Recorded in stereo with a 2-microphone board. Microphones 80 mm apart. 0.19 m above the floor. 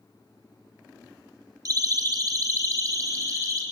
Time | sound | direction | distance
1.6 | a siren | 50° right (ahead or behind) | 4 m